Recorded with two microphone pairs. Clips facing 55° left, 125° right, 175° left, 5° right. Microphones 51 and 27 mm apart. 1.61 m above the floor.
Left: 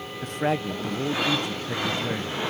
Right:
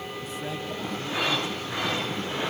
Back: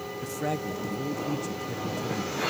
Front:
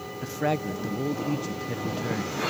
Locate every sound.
0.2 s a man speaking: 45° left, 0.6 m